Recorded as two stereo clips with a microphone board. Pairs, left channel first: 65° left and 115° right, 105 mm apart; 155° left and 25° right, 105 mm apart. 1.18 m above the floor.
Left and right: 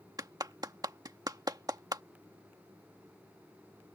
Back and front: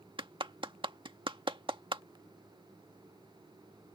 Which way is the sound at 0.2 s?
60° right.